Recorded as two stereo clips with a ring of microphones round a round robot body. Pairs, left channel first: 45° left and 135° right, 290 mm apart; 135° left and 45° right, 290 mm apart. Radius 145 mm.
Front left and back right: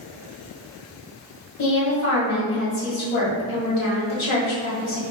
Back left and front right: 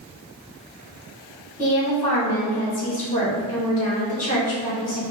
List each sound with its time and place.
1.6 s a woman speaking: 75° left, 1.9 m